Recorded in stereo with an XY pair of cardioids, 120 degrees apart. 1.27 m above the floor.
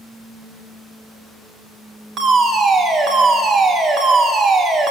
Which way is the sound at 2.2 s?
55° right.